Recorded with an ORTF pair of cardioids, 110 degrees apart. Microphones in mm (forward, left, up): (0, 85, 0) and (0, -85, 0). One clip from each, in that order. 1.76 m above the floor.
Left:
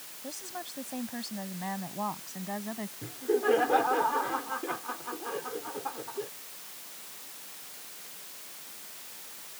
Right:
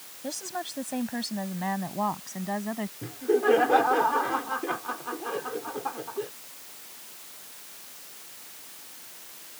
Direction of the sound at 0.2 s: 40° right.